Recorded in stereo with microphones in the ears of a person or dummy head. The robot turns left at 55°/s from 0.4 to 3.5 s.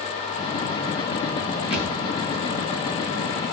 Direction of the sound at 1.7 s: 30° left (ahead or behind).